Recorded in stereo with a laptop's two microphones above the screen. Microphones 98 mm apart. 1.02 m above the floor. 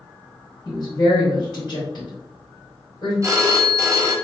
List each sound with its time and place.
0.7 s a woman speaking: 50° left (ahead or behind), 2.0 m
3.2 s a phone ringing: 30° right (ahead or behind), 0.9 m